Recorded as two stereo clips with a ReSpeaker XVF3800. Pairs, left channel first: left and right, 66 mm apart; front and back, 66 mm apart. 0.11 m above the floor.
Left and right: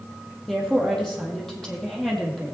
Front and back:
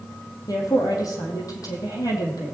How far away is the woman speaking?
About 3.5 m.